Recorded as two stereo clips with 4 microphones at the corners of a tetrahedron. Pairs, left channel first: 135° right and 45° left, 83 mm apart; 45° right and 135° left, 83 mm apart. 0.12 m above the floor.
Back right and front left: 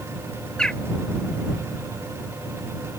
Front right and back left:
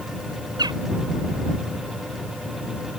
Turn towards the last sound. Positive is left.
turn(degrees=145)